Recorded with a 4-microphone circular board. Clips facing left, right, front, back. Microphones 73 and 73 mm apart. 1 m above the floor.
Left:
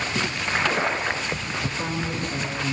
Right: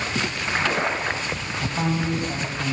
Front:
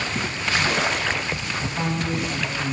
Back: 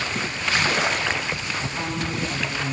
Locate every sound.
1.6 s a man speaking: 80° right, 9 m